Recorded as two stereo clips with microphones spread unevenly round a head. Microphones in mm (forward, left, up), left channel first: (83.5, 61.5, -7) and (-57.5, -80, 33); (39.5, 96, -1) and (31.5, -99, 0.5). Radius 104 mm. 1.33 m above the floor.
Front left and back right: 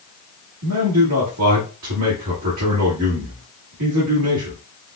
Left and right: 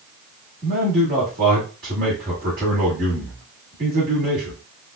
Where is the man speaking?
145° right, 1.6 m.